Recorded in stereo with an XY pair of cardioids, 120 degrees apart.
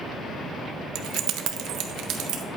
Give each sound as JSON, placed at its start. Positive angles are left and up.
{"t": 0.9, "sound": "keys jangling", "azimuth_deg": -65, "distance_m": 0.5}